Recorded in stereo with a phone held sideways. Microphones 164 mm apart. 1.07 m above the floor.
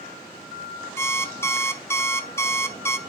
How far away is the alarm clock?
About 0.6 m.